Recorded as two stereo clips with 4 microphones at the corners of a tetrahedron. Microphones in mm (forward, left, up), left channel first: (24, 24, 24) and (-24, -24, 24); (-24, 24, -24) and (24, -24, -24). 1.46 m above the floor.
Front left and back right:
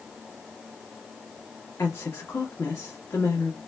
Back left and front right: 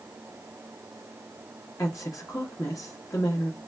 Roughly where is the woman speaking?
Left.